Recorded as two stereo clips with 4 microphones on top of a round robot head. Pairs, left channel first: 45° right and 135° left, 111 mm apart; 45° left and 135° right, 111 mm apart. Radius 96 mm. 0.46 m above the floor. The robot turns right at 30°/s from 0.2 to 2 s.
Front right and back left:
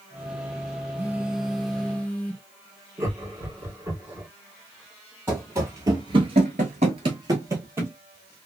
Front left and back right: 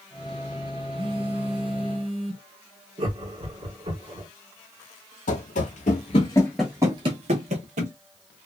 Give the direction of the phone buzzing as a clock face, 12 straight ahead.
5 o'clock.